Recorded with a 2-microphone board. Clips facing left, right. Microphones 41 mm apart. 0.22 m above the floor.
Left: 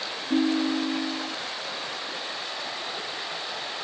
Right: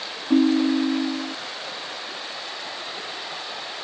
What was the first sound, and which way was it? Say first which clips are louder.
A ringtone: right 6 dB; 50° right (ahead or behind).